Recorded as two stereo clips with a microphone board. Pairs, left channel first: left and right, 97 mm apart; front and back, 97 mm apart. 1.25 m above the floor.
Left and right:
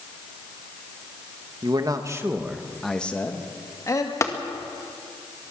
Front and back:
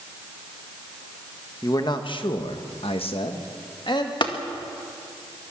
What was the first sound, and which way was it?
A man speaking, 50° right.